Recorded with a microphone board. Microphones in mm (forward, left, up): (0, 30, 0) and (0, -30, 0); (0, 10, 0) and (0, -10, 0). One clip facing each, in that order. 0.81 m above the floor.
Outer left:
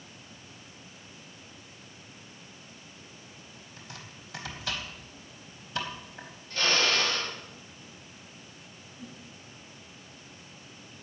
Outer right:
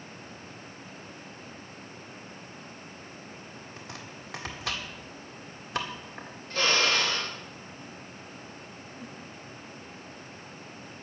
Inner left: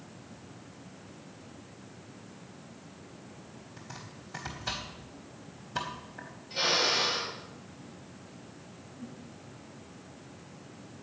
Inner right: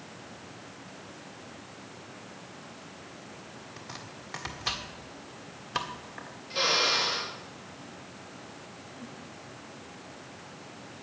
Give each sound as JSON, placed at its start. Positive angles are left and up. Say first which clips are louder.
{"t": 3.8, "sound": "chopping", "louder": "outer right 2 dB, inner right 2 dB", "side_deg": -70, "distance_m": 1.8}
{"t": 6.5, "sound": "a drill", "louder": "outer right 1 dB, inner right 2 dB", "side_deg": -70, "distance_m": 4.0}
{"t": 9.0, "sound": "a whoosh", "louder": "even, inner left 1 dB", "side_deg": -65, "distance_m": 6.5}